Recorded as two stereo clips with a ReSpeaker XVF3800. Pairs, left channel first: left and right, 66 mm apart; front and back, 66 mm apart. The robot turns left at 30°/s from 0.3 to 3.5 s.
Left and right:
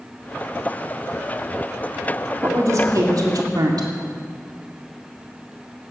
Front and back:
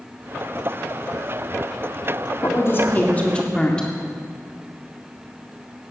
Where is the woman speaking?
45° right, 2 m; by 3.9 s 75° right, 2 m.